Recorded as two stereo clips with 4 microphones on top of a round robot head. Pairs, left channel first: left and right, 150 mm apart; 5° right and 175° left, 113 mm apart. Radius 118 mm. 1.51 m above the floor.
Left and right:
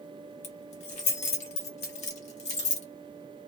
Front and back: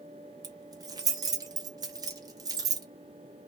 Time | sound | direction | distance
0.4 | keys jangling | 125° left | 0.8 m